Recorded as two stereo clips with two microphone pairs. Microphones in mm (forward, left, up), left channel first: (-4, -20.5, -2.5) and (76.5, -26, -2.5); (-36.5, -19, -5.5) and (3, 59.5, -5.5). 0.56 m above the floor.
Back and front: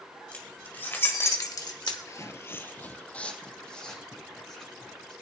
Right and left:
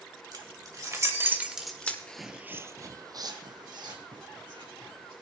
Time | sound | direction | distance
0.3 | keys jangling | 105° left | 2.5 m
2.1 | footsteps | 175° left | 0.6 m